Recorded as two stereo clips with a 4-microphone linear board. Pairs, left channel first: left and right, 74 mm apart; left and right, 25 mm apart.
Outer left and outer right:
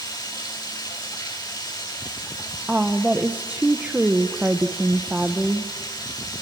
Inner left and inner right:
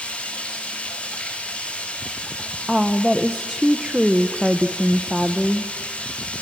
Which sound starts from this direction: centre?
A woman speaking, at 2.7 s.